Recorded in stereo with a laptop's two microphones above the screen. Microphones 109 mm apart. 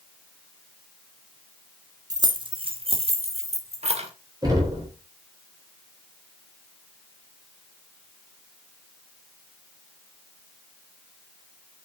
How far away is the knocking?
About 3.5 m.